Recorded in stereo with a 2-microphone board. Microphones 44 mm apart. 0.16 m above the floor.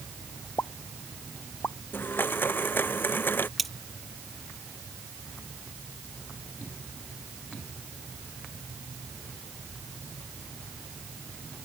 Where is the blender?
55° left (ahead or behind).